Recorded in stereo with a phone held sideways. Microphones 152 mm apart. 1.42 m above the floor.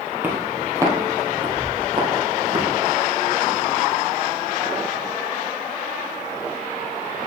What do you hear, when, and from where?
0.2 s footsteps: 10° right (ahead or behind), 1.6 m; by 2.7 s 40° right (ahead or behind), 3 m